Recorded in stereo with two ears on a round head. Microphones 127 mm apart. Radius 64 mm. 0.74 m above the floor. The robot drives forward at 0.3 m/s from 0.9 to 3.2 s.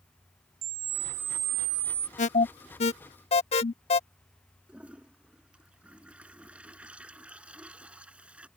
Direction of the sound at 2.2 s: 55° left (ahead or behind).